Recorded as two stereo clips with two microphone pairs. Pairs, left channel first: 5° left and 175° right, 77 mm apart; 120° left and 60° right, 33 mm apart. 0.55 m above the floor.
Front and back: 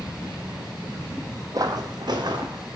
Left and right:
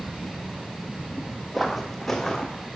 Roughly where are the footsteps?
Behind right.